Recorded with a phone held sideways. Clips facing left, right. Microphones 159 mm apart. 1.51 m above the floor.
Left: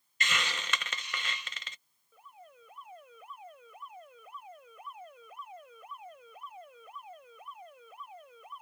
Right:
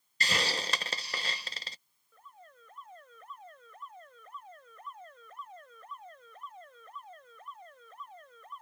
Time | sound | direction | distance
0.2 | a hiss | 35° right (ahead or behind) | ?
2.1 | an alarm | 10° left (ahead or behind) | ?